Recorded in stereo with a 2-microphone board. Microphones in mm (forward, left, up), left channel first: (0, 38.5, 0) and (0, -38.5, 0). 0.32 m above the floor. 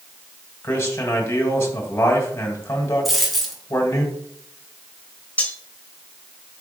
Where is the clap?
No clap in this recording.